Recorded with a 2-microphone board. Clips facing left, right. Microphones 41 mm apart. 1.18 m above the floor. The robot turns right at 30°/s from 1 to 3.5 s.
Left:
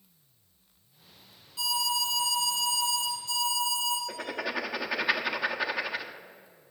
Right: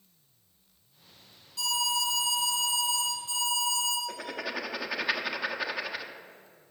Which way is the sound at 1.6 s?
175° left.